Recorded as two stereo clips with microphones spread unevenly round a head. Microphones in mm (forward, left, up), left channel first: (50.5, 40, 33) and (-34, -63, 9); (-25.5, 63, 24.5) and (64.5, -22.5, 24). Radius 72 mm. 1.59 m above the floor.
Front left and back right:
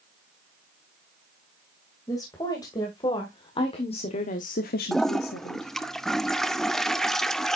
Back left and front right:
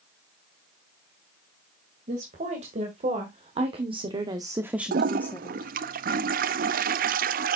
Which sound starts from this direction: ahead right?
A toilet flushing, at 4.9 s.